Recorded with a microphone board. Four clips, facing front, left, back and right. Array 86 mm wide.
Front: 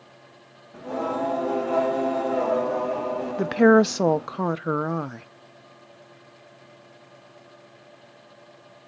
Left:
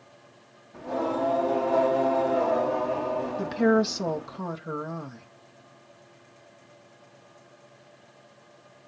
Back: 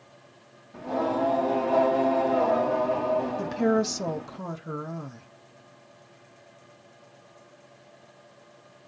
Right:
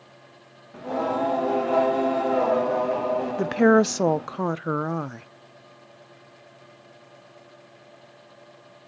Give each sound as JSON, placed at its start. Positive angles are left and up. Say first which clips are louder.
{"t": 0.7, "sound": "singing", "louder": "right 2 dB, back 1 dB", "azimuth_deg": -80, "distance_m": 2.0}
{"t": 3.4, "sound": "a woman speaking", "louder": "right 5 dB, front 8 dB", "azimuth_deg": -45, "distance_m": 0.6}